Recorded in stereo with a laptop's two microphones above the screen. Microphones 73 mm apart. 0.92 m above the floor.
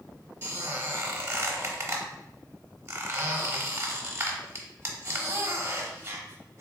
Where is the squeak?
40° right (ahead or behind), 1.2 m.